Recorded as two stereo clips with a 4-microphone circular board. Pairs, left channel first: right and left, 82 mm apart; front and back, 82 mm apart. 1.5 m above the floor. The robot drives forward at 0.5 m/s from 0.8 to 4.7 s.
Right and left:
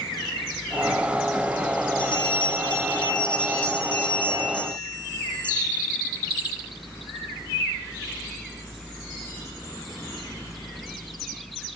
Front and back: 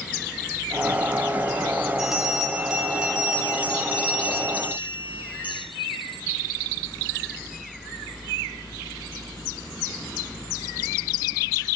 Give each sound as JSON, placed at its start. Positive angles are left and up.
{"t": 2.0, "sound": "a bell", "azimuth_deg": -95, "distance_m": 5.0}